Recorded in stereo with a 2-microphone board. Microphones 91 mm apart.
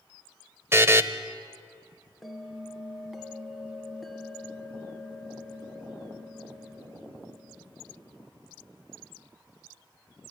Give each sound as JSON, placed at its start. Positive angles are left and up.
{"t": 0.7, "sound": "a buzzer", "side_deg": -30, "distance_m": 0.9}
{"t": 2.2, "sound": "a bell", "side_deg": 0, "distance_m": 1.7}